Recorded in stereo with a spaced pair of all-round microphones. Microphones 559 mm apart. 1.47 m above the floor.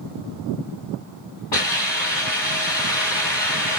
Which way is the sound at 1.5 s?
50° left (ahead or behind).